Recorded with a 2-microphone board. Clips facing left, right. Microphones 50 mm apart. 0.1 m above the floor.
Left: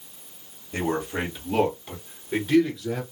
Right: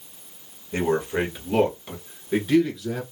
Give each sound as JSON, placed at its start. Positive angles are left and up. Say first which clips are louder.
{"t": 0.7, "sound": "a man speaking", "louder": "right 4 dB", "side_deg": -30, "distance_m": 2.0}